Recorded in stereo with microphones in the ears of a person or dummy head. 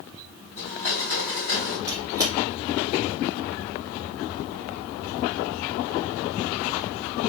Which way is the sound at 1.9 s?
20° right (ahead or behind).